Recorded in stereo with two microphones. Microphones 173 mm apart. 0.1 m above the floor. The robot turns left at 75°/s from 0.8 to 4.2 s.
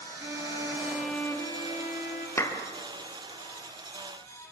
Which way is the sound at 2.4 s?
15° left (ahead or behind).